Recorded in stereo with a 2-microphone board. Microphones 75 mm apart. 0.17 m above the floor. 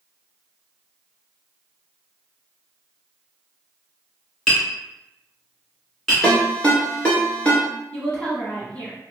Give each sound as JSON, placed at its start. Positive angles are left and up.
{"t": 4.5, "sound": "tapping", "side_deg": 5, "distance_m": 1.9}
{"t": 6.2, "sound": "a ringtone", "side_deg": 15, "distance_m": 1.6}
{"t": 7.9, "sound": "a woman speaking", "side_deg": 15, "distance_m": 1.5}